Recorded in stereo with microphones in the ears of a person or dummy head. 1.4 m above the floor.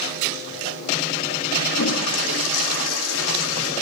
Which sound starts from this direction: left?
A toilet flushing, at 1.7 s.